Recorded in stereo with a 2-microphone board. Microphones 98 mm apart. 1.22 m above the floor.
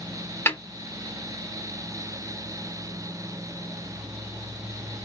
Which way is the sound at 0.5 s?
20° left (ahead or behind).